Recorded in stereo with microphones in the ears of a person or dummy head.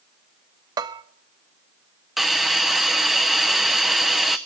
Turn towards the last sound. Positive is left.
turn(degrees=0)  # may be behind; listen again after turning